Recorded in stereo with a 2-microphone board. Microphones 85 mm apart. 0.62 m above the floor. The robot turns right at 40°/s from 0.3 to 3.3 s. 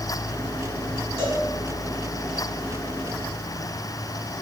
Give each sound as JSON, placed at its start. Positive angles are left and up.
{"t": 1.2, "sound": "a cowbell", "side_deg": -25, "distance_m": 4.0}